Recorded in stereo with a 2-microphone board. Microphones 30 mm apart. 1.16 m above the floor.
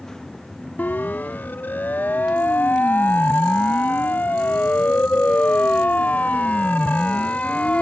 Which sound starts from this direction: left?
A siren, at 0.8 s.